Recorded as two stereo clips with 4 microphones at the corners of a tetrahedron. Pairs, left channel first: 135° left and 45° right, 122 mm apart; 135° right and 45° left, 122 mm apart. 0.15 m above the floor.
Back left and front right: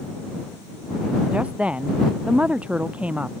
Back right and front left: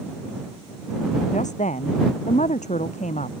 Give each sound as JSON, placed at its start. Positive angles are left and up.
{"t": 1.3, "sound": "a woman speaking", "azimuth_deg": -125}